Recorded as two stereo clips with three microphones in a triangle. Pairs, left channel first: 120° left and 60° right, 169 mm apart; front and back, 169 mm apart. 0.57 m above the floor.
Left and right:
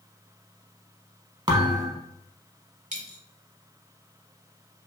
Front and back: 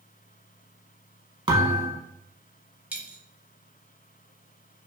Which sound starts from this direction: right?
A dropped coin, at 2.9 s.